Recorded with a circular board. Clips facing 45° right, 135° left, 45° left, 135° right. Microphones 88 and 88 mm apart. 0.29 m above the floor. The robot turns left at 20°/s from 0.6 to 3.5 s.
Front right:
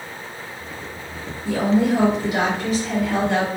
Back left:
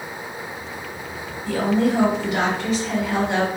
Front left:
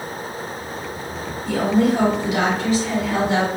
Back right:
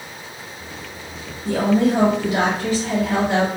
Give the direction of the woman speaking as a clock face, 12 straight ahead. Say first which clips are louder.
Front right 1 dB, back right 1 dB; 4 o'clock.